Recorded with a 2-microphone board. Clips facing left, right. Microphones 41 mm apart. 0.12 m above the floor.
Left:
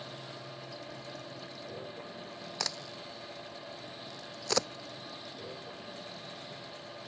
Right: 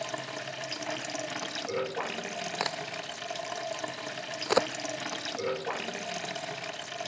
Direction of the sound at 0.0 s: 85° right.